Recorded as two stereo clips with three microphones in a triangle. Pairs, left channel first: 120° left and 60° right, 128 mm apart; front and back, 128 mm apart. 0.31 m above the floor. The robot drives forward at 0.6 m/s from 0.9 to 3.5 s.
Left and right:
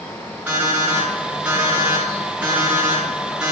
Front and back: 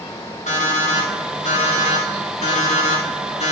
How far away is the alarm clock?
About 7 m.